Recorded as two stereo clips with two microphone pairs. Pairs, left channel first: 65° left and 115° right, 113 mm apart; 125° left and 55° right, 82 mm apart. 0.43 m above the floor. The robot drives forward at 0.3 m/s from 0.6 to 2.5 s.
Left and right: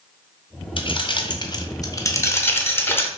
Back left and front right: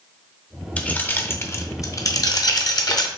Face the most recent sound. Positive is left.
turn(degrees=130)